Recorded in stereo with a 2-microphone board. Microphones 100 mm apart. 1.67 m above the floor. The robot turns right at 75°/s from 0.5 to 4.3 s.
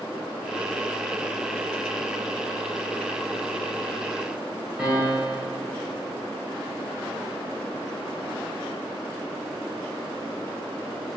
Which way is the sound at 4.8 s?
10° right (ahead or behind).